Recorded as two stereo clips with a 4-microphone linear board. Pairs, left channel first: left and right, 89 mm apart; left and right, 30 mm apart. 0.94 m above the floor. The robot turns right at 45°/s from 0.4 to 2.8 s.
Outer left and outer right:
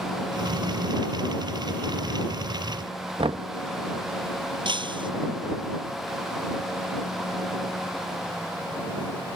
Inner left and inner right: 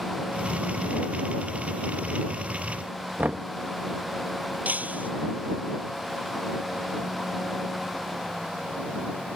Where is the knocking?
70° right (ahead or behind).